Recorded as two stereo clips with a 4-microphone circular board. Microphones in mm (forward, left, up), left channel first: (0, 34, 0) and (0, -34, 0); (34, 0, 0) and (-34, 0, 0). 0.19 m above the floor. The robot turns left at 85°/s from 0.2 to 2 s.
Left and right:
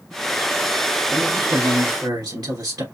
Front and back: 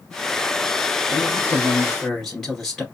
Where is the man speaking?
5° right, 2.5 m; by 2.8 s 80° right, 2.5 m.